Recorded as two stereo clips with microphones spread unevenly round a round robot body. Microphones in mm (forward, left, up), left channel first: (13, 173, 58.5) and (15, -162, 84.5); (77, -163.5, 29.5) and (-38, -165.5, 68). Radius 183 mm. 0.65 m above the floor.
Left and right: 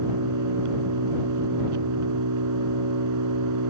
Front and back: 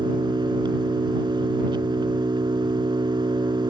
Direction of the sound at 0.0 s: 130° right.